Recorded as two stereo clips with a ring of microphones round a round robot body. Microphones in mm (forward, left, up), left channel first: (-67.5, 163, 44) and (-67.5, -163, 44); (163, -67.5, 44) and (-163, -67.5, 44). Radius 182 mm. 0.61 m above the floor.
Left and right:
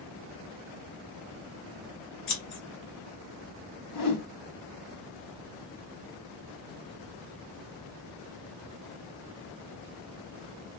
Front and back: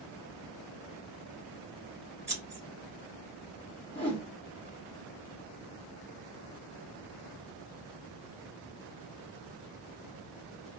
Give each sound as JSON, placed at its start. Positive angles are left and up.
{"t": 2.3, "sound": "scissors", "azimuth_deg": 110, "distance_m": 2.5}
{"t": 3.9, "sound": "a whoosh", "azimuth_deg": 75, "distance_m": 1.5}